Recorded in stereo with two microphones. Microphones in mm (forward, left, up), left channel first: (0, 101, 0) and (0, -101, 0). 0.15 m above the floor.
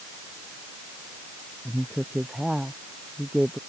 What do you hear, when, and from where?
1.6 s a woman speaking: centre (ahead or behind)